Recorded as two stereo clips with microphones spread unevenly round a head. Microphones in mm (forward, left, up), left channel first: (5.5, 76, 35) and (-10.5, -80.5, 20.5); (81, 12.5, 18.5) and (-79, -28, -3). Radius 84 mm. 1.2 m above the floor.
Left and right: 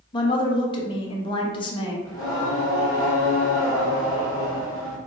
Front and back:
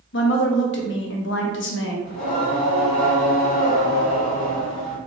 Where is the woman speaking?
25° left, 0.8 m.